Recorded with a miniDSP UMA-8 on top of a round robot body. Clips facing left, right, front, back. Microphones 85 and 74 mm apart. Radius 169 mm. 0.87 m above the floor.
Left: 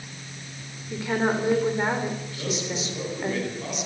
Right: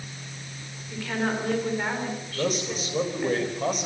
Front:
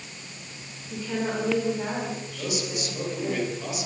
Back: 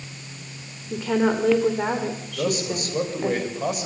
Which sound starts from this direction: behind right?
A man speaking, at 2.4 s.